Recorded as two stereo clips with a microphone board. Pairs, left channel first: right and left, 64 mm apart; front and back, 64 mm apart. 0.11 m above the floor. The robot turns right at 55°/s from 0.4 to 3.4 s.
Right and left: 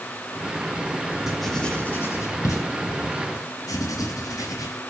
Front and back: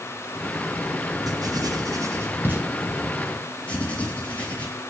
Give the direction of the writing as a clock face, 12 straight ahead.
6 o'clock.